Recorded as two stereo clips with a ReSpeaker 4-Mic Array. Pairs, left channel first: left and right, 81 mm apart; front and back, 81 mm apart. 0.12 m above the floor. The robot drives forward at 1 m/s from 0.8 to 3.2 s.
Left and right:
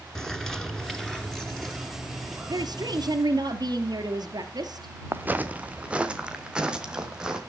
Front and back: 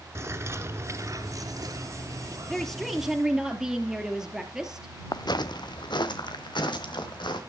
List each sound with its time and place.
0.1 s a bird: 170° left, 1.5 m; by 3.1 s 175° left, 3.5 m
2.5 s a woman speaking: 80° right, 2.5 m; by 4.9 s 95° right, 2.5 m
5.1 s footsteps: 25° right, 0.8 m; by 7.4 s 10° right, 3 m